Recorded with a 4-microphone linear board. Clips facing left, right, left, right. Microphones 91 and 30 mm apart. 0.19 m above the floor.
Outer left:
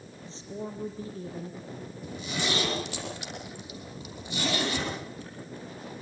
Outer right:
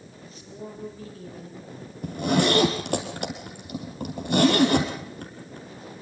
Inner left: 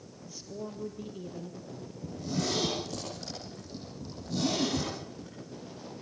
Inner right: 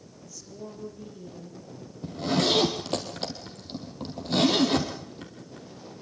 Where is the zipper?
60° right (ahead or behind), 4 m.